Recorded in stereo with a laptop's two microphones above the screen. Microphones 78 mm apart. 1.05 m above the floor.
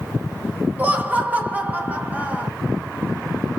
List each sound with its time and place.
0.8 s laughter: 20° right (ahead or behind), 0.8 m